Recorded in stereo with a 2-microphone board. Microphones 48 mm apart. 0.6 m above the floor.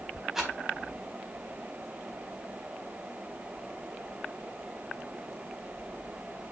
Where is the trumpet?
No trumpet in this recording.